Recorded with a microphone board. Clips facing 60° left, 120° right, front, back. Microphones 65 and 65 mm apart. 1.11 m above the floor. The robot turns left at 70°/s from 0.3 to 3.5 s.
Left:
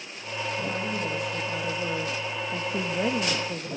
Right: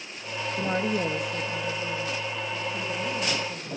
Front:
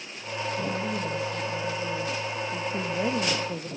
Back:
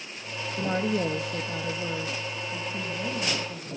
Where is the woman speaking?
150° right, 2 m; by 3.7 s 5° left, 2 m.